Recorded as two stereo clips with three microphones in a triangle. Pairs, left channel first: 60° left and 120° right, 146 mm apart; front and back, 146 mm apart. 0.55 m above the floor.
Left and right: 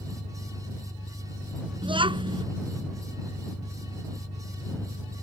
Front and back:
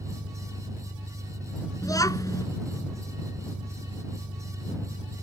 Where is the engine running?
125° left.